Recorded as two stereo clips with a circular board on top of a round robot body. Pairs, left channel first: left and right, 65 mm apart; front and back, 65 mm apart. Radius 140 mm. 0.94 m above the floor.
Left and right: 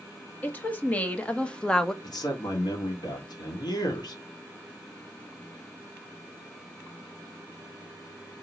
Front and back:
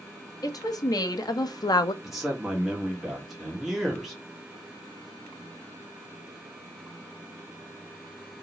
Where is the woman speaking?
25° left, 1.3 m; by 1.9 s 5° left, 0.6 m.